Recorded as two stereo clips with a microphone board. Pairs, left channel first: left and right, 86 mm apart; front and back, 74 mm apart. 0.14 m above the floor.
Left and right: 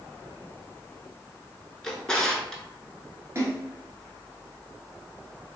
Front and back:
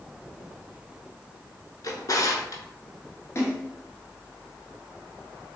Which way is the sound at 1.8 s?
10° left.